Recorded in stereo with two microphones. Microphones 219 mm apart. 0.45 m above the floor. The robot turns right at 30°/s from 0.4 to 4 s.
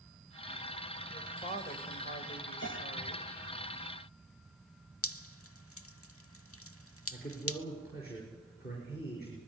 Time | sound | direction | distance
1.1 | a woman speaking | 40° left | 1.5 m
2.6 | a piano | 65° left (ahead or behind) | 3.5 m
5.0 | dripping | 85° left | 0.7 m
7.1 | a man speaking | 45° left (ahead or behind) | 6 m